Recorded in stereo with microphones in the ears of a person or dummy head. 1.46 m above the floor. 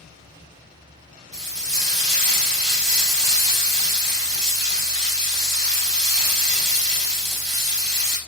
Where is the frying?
45° right (ahead or behind), 1.4 m.